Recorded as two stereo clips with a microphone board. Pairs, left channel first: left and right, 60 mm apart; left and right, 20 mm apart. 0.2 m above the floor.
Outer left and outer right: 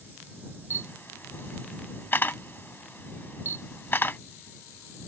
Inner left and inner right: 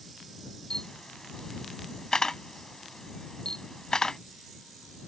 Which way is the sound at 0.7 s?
35° left (ahead or behind).